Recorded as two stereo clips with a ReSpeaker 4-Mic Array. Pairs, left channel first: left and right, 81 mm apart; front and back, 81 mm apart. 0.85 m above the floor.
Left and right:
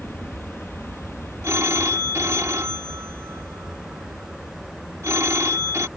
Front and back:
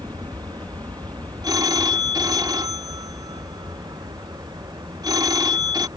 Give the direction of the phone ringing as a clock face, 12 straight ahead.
5 o'clock.